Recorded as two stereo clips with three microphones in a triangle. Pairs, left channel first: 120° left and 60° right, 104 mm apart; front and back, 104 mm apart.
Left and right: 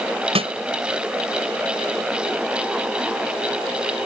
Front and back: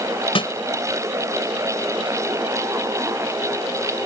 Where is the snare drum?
35° right.